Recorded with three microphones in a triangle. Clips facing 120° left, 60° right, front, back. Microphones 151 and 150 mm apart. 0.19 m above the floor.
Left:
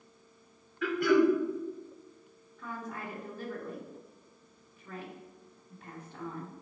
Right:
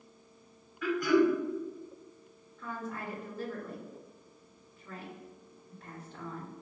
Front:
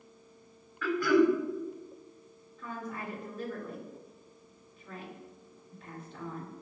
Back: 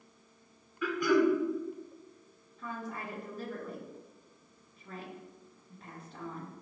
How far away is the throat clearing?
About 0.7 m.